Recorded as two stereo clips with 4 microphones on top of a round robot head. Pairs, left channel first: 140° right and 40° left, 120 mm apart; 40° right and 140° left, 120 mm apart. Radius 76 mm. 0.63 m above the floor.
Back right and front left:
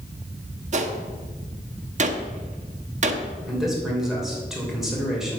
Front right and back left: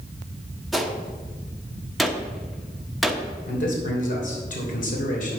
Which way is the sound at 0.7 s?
50° left.